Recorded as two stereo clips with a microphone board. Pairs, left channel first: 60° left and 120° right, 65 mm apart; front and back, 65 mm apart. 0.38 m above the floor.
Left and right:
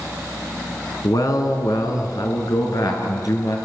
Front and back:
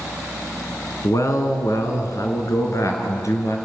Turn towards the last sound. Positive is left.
turn(degrees=40)